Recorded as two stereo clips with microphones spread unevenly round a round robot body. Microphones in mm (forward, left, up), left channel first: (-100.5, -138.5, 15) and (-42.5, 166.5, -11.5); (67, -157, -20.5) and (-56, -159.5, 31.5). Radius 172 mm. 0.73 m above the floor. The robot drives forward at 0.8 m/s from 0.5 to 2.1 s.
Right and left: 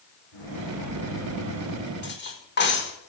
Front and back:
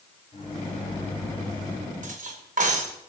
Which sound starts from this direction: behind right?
Cutlery clinking, at 2.0 s.